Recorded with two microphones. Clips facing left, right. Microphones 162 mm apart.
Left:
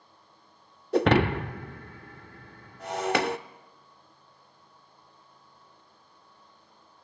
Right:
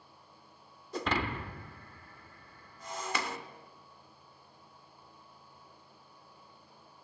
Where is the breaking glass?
70° left (ahead or behind), 0.7 m.